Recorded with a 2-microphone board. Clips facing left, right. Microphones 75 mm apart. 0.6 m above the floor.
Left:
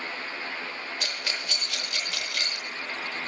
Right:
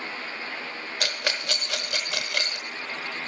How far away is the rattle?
About 0.8 m.